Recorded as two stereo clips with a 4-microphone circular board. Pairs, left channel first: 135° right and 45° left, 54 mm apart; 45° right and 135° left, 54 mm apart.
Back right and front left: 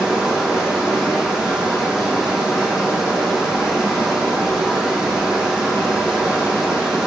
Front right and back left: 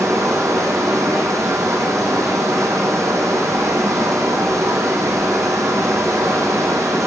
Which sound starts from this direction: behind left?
Running water, at 0.0 s.